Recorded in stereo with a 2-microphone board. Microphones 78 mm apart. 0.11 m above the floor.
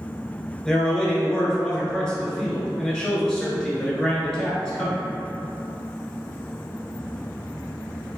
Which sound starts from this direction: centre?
A man speaking, at 0.7 s.